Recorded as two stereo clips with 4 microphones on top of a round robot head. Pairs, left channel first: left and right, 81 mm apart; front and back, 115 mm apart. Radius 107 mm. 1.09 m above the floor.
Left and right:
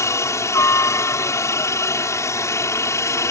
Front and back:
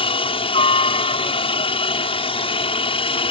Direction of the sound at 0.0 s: 40° left.